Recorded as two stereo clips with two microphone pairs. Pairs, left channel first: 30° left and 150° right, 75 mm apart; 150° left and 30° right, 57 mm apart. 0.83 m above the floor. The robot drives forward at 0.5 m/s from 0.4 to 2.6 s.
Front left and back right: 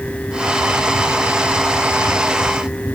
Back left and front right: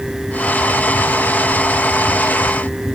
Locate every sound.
Only background noise.